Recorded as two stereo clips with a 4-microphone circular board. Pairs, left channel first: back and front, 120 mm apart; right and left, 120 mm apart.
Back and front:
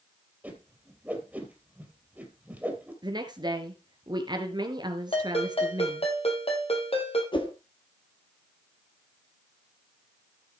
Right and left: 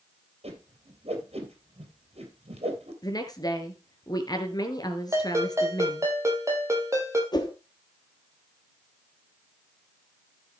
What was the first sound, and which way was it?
A whoosh, 75° left.